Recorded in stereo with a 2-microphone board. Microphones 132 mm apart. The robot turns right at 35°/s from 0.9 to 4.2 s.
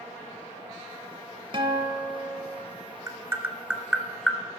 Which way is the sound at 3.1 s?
25° right (ahead or behind).